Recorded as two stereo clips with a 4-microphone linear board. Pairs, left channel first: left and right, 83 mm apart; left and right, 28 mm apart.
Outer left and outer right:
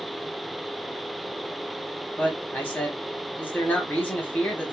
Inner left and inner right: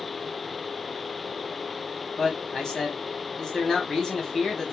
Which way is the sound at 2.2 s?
25° left (ahead or behind).